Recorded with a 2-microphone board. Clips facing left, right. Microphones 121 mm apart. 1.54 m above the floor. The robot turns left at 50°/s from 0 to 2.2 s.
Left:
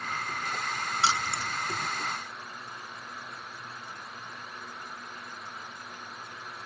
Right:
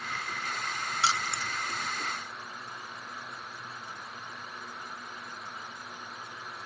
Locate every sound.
1.0 s keys jangling: 25° left (ahead or behind), 0.6 m; by 1.6 s 10° left (ahead or behind), 0.6 m